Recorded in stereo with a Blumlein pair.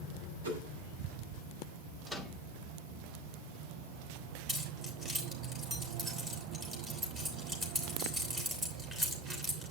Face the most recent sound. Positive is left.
turn(degrees=-15)